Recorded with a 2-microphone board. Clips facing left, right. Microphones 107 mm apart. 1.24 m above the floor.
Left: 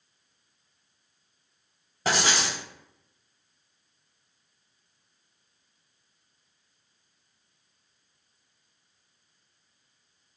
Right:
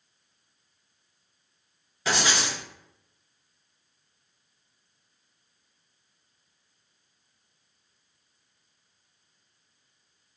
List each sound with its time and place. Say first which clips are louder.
2.0 s writing: left 1 dB; 40° left (ahead or behind), 1.4 m